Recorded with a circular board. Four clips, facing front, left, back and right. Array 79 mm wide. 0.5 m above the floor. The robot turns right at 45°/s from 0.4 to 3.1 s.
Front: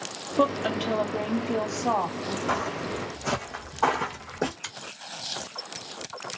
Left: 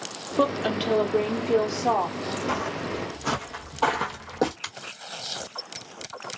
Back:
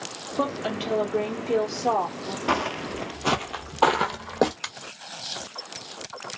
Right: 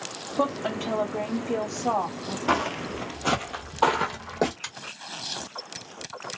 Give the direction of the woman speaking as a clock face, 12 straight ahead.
10 o'clock.